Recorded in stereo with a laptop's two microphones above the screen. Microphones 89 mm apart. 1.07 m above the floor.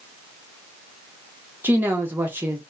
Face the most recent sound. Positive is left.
turn(degrees=-20)  # may be behind; listen again after turning